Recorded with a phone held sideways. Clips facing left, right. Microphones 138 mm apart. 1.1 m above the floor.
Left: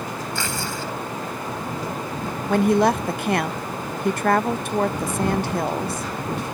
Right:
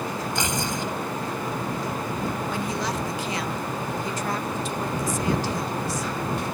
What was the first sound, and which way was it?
Tearing paper, 20° right (ahead or behind).